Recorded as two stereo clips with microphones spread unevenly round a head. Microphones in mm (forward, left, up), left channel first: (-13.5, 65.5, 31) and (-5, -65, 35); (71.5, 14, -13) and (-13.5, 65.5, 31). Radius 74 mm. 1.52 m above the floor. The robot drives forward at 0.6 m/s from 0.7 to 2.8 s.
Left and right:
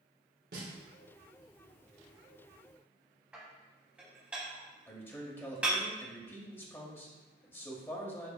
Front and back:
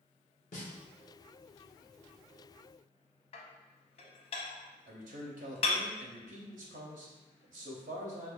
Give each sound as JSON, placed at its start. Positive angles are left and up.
{"t": 0.5, "sound": "a snare drum", "azimuth_deg": -60, "distance_m": 1.1}
{"t": 3.3, "sound": "dishes clattering", "azimuth_deg": -15, "distance_m": 0.6}
{"t": 4.9, "sound": "a man speaking", "azimuth_deg": 165, "distance_m": 0.8}